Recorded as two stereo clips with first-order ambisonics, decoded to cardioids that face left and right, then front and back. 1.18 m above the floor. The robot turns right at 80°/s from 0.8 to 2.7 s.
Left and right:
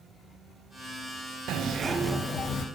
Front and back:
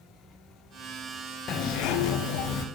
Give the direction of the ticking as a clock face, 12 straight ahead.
I don't hear ticking.